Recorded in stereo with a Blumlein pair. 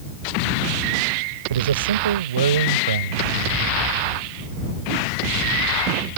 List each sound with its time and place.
1.5 s a man speaking: 65° right